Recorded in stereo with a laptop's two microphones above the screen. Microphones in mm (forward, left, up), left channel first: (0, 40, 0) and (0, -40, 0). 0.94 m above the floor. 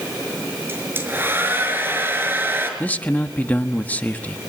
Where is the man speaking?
20° left (ahead or behind), 1.3 m.